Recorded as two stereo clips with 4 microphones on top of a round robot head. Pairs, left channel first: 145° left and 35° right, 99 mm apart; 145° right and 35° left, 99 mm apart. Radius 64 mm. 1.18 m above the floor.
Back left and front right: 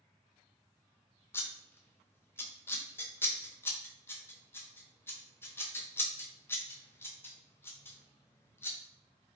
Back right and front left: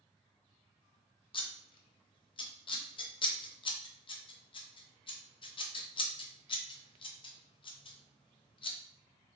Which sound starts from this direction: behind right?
Scissors, at 1.3 s.